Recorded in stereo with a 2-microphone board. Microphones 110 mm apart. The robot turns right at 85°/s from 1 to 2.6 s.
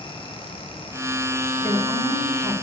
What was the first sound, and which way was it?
A woman speaking, 20° left.